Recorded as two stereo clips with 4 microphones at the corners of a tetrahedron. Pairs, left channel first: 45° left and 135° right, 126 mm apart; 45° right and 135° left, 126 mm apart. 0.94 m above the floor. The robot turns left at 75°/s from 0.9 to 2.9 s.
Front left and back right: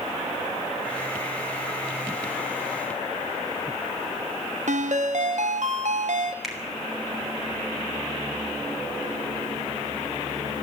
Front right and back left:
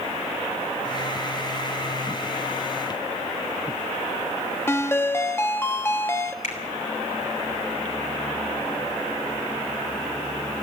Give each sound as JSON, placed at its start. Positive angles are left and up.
{"t": 4.7, "sound": "a ringtone", "azimuth_deg": -115, "distance_m": 0.9}
{"t": 6.4, "sound": "a finger snap", "azimuth_deg": -45, "distance_m": 3.0}